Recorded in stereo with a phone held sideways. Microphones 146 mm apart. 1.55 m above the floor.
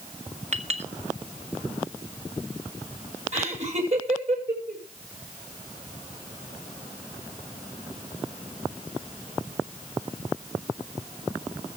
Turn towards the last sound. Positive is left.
turn(degrees=-50)  # may be behind; listen again after turning